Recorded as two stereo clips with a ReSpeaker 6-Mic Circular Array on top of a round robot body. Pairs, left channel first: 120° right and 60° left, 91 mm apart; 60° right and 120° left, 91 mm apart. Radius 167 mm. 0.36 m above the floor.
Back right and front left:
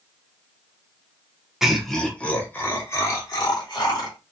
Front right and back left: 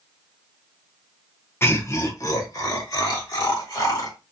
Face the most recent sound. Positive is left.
turn(degrees=-95)